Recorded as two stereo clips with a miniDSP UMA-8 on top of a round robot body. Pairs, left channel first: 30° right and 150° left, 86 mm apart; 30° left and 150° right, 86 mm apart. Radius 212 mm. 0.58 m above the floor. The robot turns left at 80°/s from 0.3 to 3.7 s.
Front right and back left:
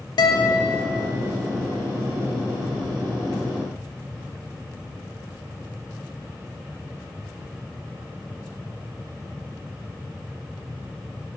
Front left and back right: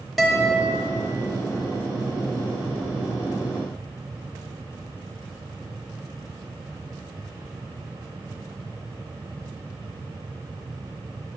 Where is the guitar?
60° right, 0.7 m; by 0.8 s 100° right, 0.7 m.